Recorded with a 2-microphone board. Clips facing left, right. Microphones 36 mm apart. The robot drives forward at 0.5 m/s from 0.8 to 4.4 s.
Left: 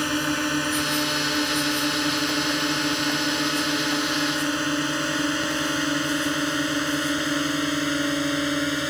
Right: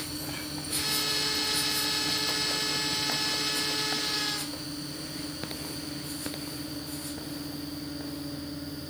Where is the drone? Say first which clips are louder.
Left 13 dB; 80° left; by 8.9 s 65° left (ahead or behind).